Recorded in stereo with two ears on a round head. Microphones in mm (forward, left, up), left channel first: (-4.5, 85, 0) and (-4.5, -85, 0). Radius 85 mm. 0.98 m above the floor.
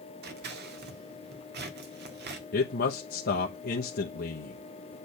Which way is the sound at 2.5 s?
50° left (ahead or behind).